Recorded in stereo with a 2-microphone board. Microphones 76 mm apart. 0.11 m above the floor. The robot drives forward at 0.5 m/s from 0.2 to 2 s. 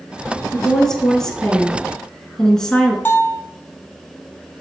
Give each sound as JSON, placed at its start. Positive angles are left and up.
{"t": 0.5, "sound": "a woman speaking", "side_deg": 5, "distance_m": 1.9}
{"t": 3.0, "sound": "a bell", "side_deg": 25, "distance_m": 1.2}